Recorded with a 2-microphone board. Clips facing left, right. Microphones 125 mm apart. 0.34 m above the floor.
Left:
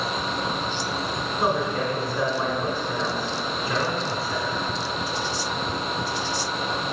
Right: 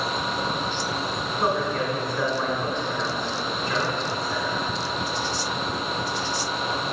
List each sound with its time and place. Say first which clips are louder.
1.4 s a man speaking: even; 5° left (ahead or behind), 1.5 m